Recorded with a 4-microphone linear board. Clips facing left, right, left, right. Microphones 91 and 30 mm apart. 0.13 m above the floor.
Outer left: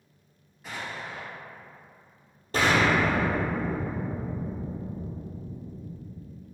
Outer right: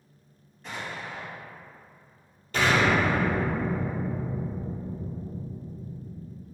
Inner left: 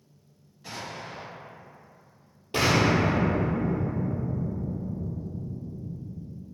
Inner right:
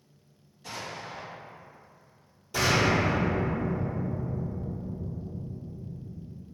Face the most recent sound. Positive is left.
turn(degrees=40)  # may be behind; listen again after turning